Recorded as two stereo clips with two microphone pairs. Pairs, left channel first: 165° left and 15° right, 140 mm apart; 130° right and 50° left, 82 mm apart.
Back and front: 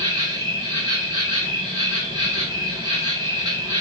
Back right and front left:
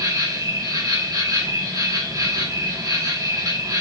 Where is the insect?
35° left, 3 m.